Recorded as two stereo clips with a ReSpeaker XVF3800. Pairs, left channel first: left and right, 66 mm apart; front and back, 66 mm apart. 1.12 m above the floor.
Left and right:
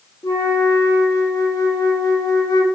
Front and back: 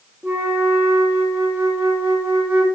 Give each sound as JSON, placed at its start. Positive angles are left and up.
{"t": 0.2, "sound": "a flute", "azimuth_deg": 120, "distance_m": 1.8}